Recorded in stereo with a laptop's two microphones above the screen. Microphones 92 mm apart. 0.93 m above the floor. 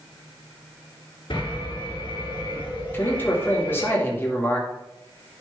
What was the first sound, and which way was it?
An alarm, 65° left (ahead or behind).